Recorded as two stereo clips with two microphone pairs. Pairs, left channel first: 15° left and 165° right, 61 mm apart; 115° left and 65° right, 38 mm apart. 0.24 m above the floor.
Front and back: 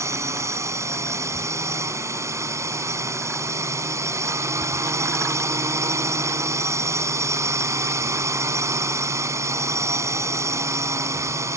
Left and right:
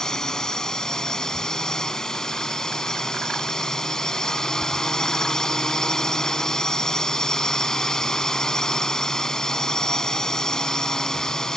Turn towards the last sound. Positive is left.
turn(degrees=-175)